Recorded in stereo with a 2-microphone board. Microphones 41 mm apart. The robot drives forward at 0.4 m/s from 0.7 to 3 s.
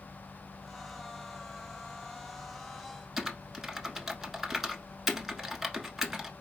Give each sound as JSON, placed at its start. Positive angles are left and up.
{"t": 3.2, "sound": "typing on a keyboard", "side_deg": -10, "distance_m": 1.0}